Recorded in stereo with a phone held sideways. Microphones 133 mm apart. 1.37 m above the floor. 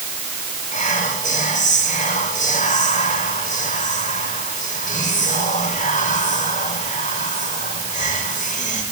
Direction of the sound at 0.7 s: 80° left.